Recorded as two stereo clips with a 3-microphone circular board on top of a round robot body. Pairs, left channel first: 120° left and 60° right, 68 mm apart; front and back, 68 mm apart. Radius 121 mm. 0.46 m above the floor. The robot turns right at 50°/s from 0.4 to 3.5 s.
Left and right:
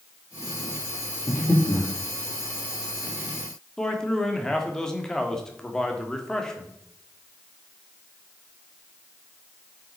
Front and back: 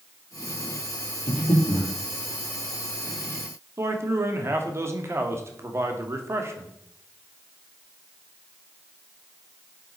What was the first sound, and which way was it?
Breathing, 40° left.